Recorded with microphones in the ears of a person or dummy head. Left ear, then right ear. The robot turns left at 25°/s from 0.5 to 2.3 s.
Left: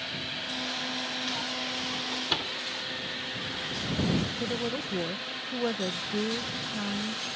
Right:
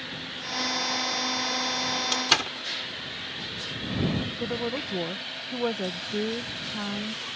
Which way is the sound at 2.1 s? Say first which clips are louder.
Right 8 dB; 60° right (ahead or behind).